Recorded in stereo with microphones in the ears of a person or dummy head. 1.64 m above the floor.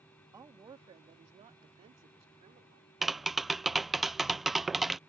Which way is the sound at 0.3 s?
20° right (ahead or behind).